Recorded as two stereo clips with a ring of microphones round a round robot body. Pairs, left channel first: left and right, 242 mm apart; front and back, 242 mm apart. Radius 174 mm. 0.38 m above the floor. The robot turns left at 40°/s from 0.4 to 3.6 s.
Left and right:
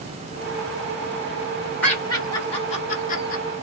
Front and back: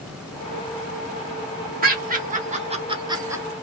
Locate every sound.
1.8 s laughter: 170° left, 1.1 m; by 3.5 s 100° left, 1.1 m